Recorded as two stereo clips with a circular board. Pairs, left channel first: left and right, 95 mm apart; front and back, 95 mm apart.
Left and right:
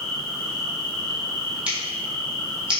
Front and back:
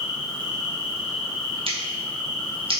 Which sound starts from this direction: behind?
Scissors, at 1.7 s.